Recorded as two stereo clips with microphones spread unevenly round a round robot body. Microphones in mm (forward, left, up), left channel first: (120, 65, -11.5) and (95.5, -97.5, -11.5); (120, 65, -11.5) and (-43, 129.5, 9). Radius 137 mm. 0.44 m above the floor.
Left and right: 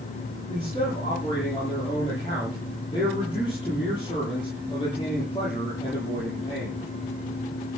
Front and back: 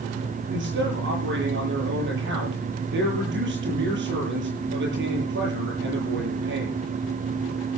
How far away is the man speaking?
About 10 m.